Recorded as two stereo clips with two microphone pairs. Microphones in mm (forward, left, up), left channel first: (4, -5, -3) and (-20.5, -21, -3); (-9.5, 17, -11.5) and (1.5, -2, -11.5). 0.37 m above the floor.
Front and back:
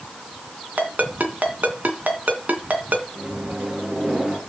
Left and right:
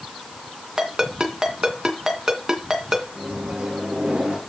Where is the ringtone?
120° right, 2.5 m.